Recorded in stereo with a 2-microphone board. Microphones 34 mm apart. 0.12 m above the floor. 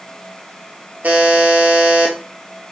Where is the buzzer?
50° right (ahead or behind), 0.7 m.